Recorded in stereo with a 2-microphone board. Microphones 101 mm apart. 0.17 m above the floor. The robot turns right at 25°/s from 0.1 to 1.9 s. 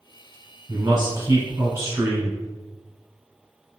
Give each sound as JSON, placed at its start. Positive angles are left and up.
{"t": 0.7, "sound": "a man speaking", "azimuth_deg": -85, "distance_m": 1.6}